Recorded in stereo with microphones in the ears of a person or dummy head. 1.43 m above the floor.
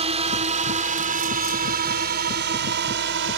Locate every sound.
0.0 s a drone: 30° right (ahead or behind); by 3.4 s 60° right (ahead or behind)